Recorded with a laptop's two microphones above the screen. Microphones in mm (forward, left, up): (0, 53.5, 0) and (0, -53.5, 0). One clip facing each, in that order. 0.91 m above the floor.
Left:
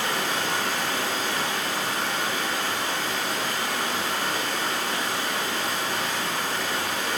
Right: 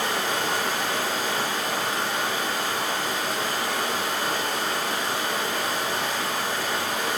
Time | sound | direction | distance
0.0 | running water | 50° right (ahead or behind) | 0.9 m